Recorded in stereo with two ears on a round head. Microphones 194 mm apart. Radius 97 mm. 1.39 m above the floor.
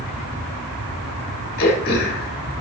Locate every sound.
1.6 s throat clearing: 45° left (ahead or behind), 1.8 m